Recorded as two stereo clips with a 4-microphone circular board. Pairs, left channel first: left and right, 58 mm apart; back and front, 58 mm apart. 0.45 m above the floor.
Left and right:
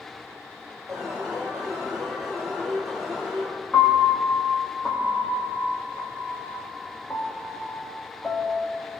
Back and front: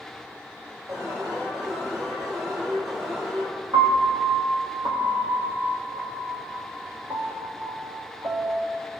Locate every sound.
0.9 s an alarm: 5° right, 9 m
3.7 s a piano: 15° left, 5 m